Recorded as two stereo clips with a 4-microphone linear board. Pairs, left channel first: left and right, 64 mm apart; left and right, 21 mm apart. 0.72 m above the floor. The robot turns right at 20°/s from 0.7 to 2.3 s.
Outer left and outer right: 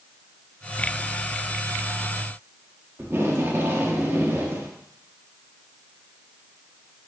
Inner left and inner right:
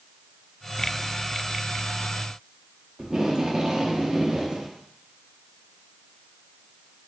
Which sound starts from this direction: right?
Tape being pulled, at 3.0 s.